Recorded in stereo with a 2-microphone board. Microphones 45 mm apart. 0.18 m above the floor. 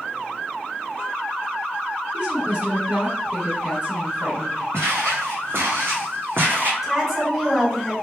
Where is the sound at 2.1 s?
35° right (ahead or behind), 1.5 m.